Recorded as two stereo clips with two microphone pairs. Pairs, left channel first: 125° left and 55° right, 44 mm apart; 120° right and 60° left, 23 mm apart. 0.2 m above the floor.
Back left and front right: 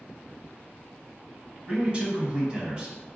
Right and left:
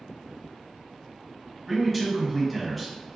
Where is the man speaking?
40° right, 1.0 m.